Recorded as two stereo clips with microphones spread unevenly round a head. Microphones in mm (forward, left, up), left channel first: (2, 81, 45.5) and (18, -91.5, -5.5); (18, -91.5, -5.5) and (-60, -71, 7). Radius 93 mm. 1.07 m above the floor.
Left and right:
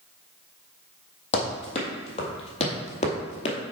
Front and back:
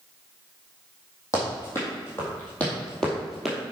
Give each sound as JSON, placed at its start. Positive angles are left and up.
{"t": 1.3, "sound": "running footsteps", "azimuth_deg": 55, "distance_m": 2.0}